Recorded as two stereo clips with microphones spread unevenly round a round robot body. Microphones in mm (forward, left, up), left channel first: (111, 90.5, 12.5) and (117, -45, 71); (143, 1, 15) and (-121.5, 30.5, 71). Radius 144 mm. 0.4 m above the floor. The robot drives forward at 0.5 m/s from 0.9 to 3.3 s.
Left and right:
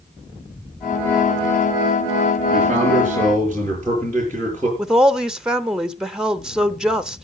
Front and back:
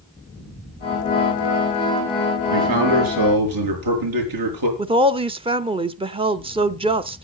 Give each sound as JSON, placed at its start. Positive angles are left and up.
{"t": 2.5, "sound": "a man speaking", "azimuth_deg": 170, "distance_m": 6.0}
{"t": 4.8, "sound": "a woman speaking", "azimuth_deg": 105, "distance_m": 0.8}